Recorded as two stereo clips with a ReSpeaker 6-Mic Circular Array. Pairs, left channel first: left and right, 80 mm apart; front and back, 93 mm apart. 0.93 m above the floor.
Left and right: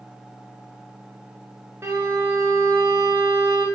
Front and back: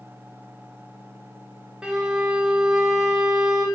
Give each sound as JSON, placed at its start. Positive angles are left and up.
{"t": 1.8, "sound": "a violin", "azimuth_deg": -105, "distance_m": 0.8}